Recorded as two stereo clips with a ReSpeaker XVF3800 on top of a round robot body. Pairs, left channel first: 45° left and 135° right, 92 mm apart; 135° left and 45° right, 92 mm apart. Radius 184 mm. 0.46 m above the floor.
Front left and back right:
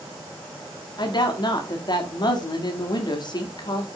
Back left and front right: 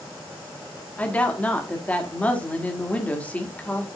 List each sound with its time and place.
1.0 s a woman speaking: 65° left, 2 m